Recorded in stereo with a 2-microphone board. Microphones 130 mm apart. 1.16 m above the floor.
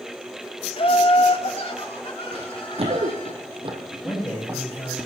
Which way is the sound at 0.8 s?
45° left (ahead or behind).